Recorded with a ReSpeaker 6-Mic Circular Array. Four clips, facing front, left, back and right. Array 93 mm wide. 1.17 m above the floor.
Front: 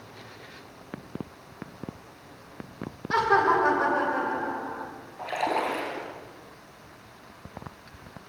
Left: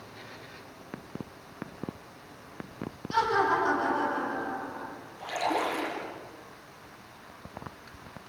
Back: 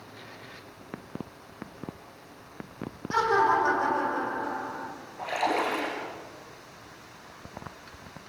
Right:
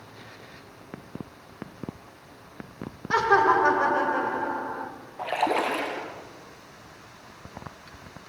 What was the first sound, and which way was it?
Laughter, 70° right.